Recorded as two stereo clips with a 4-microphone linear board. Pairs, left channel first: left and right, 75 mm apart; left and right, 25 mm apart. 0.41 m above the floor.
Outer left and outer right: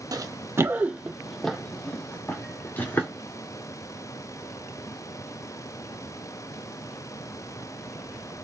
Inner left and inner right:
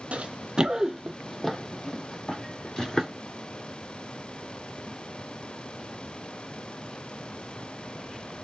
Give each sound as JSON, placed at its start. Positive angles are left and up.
{"t": 0.1, "sound": "running footsteps", "side_deg": -55, "distance_m": 0.8}